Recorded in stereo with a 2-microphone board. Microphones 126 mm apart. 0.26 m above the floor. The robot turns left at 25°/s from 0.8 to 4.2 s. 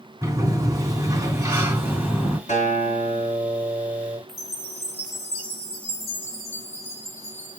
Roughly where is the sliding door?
Behind right.